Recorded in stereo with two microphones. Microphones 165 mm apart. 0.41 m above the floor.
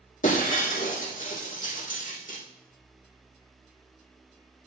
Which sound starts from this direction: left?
Breaking glass, at 0.2 s.